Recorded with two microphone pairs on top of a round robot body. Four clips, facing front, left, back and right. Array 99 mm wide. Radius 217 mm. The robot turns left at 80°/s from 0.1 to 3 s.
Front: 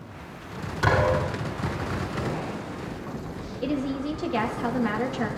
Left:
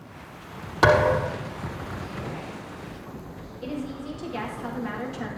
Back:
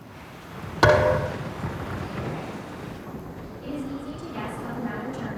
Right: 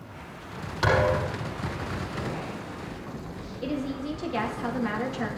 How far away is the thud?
About 4.5 m.